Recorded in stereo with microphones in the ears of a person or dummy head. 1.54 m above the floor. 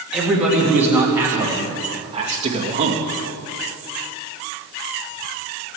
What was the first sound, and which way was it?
A man speaking, 5° right (ahead or behind).